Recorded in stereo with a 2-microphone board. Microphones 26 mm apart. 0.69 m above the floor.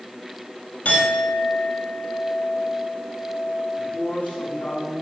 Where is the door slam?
I don't hear a door slam.